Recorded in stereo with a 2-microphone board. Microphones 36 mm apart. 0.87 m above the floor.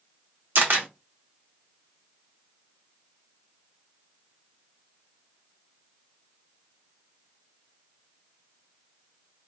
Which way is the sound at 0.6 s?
75° right (ahead or behind).